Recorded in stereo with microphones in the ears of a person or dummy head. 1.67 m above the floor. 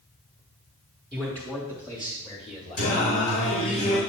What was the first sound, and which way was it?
A man speaking, 5° left (ahead or behind).